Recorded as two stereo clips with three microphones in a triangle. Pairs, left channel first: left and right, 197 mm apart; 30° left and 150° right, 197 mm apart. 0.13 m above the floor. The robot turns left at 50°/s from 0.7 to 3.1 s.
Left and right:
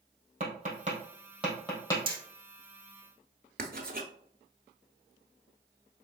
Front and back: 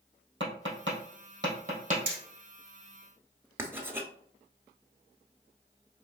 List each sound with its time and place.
0.4 s tapping: 140° right, 2.5 m; by 2.0 s 160° left, 2.5 m
2.1 s hammering: 150° right, 1.7 m; by 2.2 s 160° right, 1.7 m
3.6 s writing: 75° right, 0.9 m